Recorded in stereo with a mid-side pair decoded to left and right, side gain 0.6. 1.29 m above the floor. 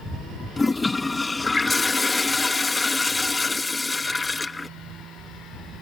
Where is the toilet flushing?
20° left.